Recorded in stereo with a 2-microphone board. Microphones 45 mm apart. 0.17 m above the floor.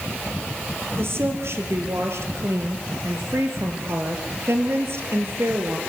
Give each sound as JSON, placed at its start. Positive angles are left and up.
{"t": 1.0, "sound": "a woman speaking", "side_deg": -60, "distance_m": 3.5}